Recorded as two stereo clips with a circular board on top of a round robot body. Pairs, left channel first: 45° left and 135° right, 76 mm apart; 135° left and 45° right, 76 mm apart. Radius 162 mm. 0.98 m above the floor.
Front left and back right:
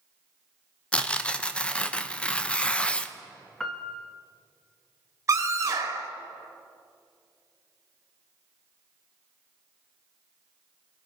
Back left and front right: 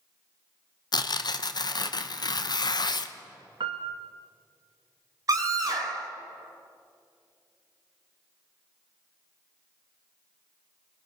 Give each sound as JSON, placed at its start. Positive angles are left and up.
{"t": 0.9, "sound": "tearing paper", "azimuth_deg": 120, "distance_m": 1.1}
{"t": 3.6, "sound": "a piano", "azimuth_deg": -40, "distance_m": 0.6}
{"t": 5.3, "sound": "a scream", "azimuth_deg": -85, "distance_m": 2.5}